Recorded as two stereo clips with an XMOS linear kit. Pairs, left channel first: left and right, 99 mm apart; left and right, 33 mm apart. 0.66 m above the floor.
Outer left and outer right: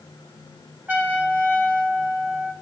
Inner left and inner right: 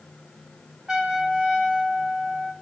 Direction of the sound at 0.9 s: 20° right (ahead or behind).